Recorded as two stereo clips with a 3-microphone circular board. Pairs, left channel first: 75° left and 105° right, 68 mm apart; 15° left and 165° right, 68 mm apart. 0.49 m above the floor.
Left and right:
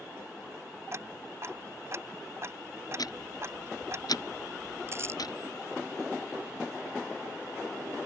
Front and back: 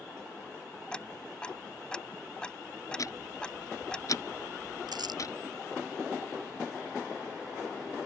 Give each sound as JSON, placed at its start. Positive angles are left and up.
{"t": 0.9, "sound": "ticking", "azimuth_deg": -60}
{"t": 3.0, "sound": "ticking", "azimuth_deg": 55}
{"t": 4.9, "sound": "crumpling", "azimuth_deg": -155}